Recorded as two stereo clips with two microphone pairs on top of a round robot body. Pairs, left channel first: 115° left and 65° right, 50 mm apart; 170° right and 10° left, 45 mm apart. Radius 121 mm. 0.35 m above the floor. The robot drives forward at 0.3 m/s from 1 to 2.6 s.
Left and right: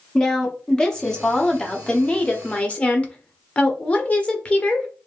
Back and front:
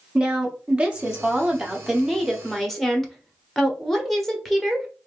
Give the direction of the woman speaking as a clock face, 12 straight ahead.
10 o'clock.